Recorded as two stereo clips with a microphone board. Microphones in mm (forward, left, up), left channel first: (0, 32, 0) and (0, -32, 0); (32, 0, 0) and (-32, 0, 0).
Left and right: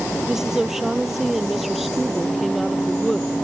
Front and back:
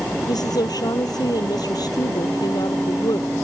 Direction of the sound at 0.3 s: 5° right.